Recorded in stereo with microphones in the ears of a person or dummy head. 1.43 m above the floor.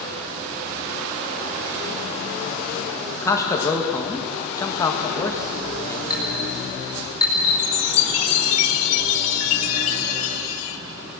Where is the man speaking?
15° left (ahead or behind), 1.8 m.